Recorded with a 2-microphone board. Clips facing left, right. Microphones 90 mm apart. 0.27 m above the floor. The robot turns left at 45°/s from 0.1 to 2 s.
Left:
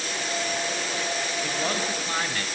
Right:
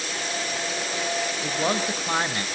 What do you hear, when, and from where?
1.4 s a man speaking: 20° right (ahead or behind), 1.0 m; by 2.5 s 30° right (ahead or behind), 1.0 m